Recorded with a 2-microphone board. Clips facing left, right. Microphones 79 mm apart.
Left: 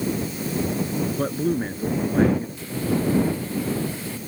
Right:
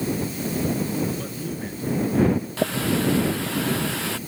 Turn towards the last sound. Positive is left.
turn(degrees=-85)